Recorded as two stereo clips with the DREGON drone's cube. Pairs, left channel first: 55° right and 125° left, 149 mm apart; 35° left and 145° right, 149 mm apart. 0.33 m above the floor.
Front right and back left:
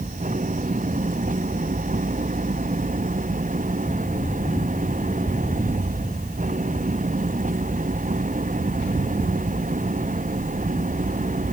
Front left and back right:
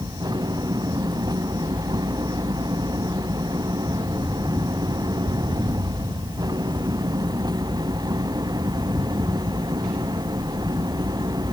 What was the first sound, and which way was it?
An engine running, 150° left.